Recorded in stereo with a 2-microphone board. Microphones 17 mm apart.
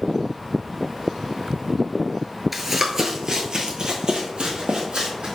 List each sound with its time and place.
2.5 s running footsteps: 10° right (ahead or behind), 0.7 m; by 5.4 s 65° right (ahead or behind), 1.9 m